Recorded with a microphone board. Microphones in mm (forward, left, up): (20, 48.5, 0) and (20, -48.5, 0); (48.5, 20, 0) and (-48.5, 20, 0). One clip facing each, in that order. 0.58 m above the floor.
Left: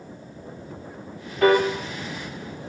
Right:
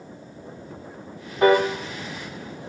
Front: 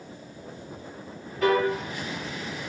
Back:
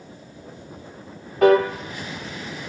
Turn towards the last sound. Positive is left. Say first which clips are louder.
# right 1 dB, back 7 dB
turn(degrees=-155)